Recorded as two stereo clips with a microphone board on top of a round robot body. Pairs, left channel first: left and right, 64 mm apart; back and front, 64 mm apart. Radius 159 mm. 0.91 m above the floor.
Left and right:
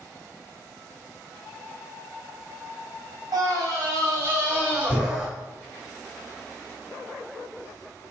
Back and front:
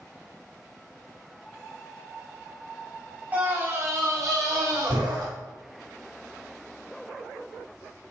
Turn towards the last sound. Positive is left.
turn(degrees=-15)